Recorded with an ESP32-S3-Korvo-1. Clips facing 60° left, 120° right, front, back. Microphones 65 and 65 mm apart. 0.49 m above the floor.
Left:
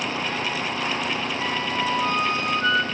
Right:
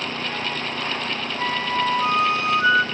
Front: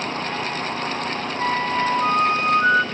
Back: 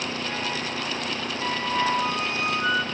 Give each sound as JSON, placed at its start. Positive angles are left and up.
{"t": 1.4, "sound": "a flute", "azimuth_deg": -50, "distance_m": 1.4}